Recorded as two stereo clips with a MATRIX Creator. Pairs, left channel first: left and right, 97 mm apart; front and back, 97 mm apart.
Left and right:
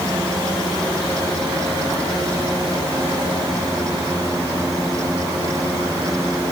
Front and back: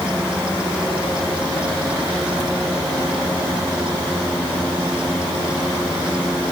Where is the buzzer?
No buzzer in this recording.